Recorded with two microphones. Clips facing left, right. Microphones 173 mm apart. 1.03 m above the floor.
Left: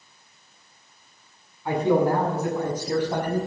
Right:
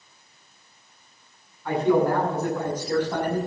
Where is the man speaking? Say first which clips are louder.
Even; 15° left (ahead or behind), 8 m.